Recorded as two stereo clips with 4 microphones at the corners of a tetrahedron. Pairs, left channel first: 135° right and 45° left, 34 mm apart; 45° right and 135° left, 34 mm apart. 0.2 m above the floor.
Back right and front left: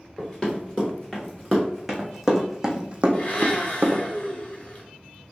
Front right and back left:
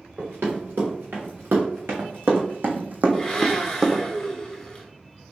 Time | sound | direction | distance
0.2 | running footsteps | 150° left | 1.9 m
3.1 | a blender | 115° right | 0.9 m